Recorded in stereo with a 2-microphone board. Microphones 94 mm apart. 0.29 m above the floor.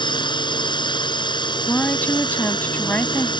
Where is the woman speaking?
20° left (ahead or behind).